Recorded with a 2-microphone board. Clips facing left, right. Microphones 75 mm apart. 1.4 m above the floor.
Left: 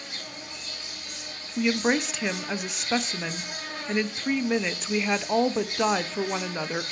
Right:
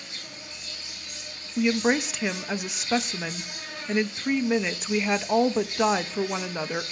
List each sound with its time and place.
0.0 s an insect: 65° left (ahead or behind), 4 m
1.6 s a woman speaking: 5° right (ahead or behind), 0.5 m